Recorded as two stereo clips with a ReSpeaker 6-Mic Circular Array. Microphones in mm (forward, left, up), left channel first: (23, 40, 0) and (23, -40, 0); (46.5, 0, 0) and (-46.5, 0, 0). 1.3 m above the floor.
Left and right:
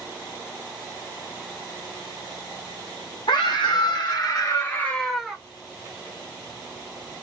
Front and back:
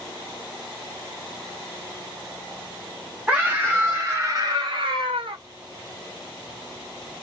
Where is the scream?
100° left, 1.3 m; by 5.4 s 170° right, 0.8 m.